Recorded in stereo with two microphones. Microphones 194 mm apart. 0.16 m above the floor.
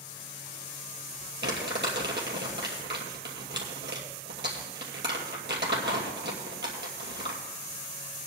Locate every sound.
1.4 s crumpling: 60° right (ahead or behind), 2.5 m